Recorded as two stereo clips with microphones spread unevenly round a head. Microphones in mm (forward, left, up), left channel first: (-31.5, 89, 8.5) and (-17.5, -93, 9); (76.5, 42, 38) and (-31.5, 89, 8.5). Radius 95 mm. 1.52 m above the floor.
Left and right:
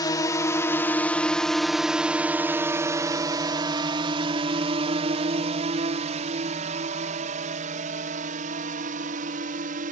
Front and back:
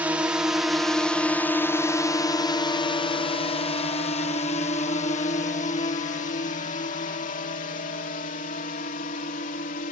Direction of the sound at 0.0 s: 140° left.